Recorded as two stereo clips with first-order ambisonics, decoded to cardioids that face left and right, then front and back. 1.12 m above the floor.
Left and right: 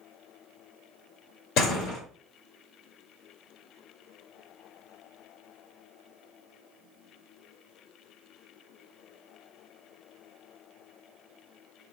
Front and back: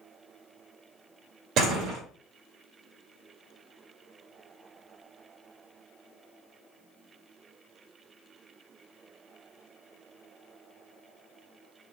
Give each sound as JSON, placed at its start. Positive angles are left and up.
{"t": 1.6, "sound": "a door slam", "azimuth_deg": 135, "distance_m": 2.0}